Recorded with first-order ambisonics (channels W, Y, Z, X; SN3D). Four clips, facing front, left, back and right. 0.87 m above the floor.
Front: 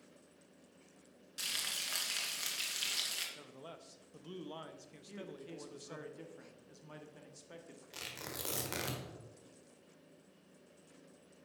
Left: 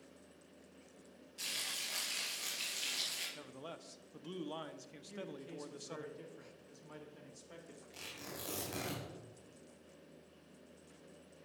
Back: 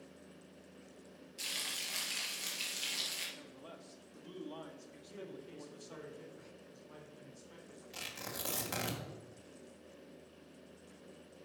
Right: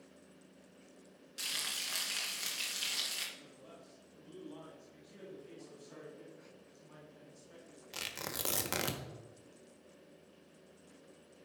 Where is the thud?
No thud in this recording.